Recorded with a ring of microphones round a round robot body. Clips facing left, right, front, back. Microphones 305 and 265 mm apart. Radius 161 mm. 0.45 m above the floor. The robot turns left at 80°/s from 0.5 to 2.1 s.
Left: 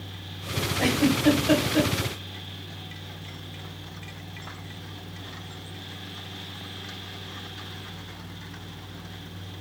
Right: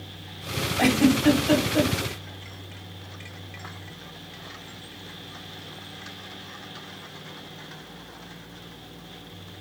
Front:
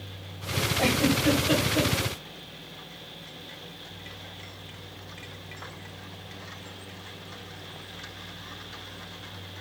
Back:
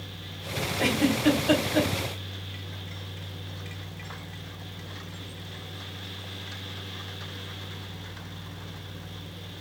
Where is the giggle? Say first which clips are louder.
Right 3 dB, back 1 dB; 110° right, 2.5 m; by 1.9 s 160° left, 2.5 m.